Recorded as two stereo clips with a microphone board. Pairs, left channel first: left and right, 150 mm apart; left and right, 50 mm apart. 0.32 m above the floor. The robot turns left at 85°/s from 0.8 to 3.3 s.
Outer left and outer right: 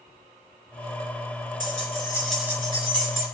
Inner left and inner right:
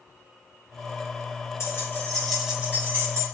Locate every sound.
1.6 s keys jangling: 65° left, 3.5 m; by 3.2 s 75° right, 3.5 m